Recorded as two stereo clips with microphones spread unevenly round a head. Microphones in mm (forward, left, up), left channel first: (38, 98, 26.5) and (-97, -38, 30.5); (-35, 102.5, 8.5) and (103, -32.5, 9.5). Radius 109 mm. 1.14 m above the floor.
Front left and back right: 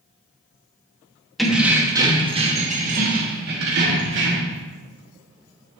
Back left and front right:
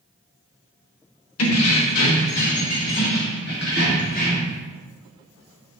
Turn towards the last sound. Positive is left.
turn(degrees=-165)